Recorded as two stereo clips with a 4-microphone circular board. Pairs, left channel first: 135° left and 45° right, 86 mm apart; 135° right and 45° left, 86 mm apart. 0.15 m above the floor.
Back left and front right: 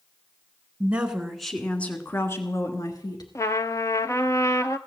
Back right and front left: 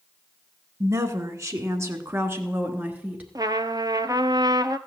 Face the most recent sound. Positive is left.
turn(degrees=85)